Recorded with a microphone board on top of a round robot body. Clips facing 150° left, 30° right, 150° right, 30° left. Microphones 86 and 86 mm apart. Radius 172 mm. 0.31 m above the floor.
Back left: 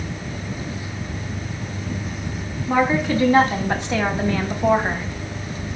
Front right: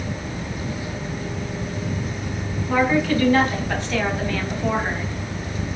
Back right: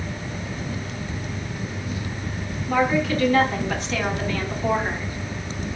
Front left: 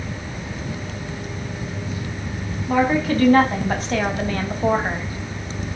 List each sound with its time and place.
2.7 s a woman speaking: 80° left, 4 m